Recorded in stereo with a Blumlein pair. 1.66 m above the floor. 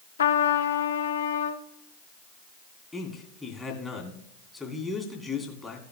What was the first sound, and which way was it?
A trumpet, 65° left.